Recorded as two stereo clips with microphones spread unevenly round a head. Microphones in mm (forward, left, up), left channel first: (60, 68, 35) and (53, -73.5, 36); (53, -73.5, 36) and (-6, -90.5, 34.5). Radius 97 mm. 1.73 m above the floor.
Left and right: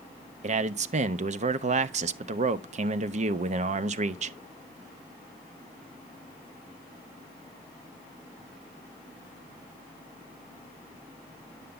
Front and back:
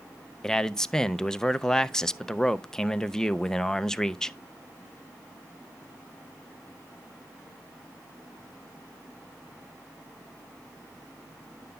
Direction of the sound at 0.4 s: 65° right.